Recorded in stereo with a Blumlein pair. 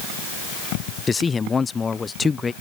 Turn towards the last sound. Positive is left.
turn(degrees=15)